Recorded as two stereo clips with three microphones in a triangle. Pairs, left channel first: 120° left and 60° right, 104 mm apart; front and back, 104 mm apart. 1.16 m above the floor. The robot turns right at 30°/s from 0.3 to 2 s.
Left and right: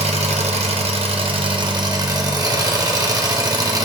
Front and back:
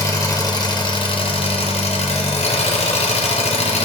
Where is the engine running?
55° right, 0.9 m; by 3.9 s 5° right, 0.9 m.